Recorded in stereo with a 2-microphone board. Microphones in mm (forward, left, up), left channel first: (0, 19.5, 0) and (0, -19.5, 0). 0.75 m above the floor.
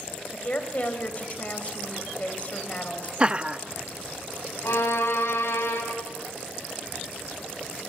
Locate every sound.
0.3 s a woman speaking: 35° left (ahead or behind), 3.5 m
3.2 s laughter: 25° right (ahead or behind), 0.6 m
4.6 s a violin: 85° left, 4.5 m